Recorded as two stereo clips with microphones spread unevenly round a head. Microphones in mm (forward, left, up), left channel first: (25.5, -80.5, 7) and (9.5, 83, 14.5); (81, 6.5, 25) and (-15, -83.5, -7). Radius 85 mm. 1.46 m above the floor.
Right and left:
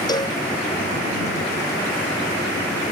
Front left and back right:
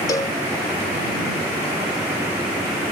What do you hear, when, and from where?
0.1 s a cowbell: 20° right